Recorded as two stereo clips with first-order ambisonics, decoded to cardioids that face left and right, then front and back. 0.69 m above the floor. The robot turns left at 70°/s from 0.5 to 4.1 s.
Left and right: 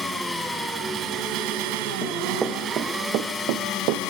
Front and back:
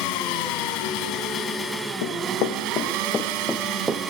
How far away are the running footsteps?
About 3 m.